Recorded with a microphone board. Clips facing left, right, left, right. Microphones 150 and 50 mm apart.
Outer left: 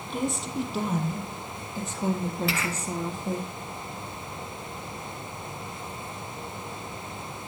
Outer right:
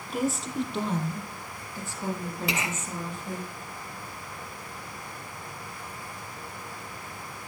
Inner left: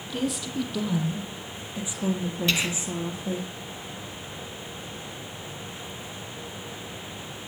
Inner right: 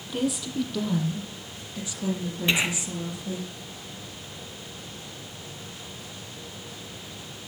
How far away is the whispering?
About 1.0 m.